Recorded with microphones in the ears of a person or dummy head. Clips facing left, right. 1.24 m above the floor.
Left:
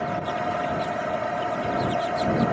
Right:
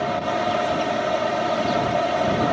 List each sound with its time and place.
0.0 s a fan: 55° right (ahead or behind)